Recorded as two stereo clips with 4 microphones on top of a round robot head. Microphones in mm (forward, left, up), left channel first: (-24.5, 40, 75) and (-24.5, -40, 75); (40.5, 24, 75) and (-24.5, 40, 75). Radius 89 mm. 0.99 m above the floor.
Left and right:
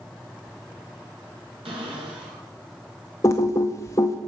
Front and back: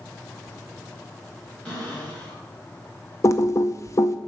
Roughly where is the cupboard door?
Right.